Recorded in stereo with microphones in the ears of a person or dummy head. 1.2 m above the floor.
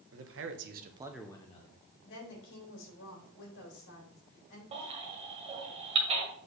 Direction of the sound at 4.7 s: 30° right (ahead or behind).